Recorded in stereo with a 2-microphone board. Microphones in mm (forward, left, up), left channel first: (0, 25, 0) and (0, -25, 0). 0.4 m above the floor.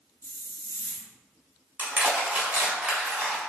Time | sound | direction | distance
0.2 | a hiss | 65° left (ahead or behind) | 0.7 m
1.8 | crushing | 30° right (ahead or behind) | 1.2 m